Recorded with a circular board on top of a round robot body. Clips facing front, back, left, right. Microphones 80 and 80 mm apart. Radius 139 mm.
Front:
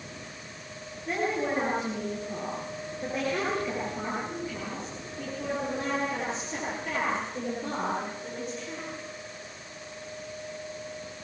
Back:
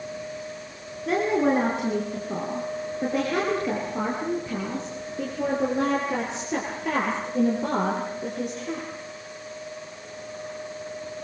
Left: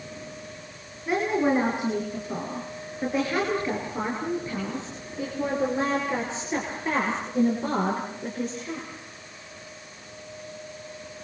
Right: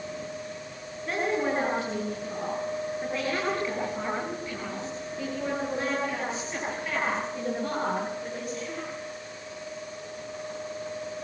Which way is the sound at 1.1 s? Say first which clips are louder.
Back 7 dB, left 4 dB; 170° left.